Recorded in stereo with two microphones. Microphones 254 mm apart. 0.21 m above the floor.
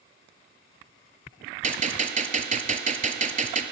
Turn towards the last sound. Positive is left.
turn(degrees=-30)  # may be behind; listen again after turning